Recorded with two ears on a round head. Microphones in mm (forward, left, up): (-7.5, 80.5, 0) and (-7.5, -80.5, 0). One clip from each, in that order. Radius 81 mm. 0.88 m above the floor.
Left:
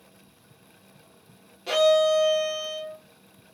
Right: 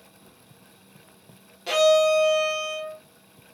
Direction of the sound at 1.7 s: 20° right (ahead or behind).